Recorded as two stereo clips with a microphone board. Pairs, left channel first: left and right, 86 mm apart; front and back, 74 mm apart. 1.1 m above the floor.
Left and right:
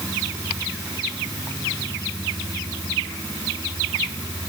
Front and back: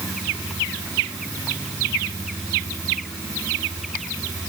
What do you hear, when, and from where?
Only background noise.